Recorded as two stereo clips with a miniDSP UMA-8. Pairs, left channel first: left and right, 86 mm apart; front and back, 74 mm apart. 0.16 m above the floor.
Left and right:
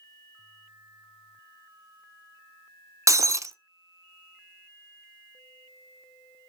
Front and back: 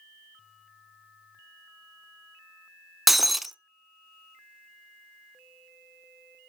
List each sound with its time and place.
3.1 s breaking glass: 90° right, 0.6 m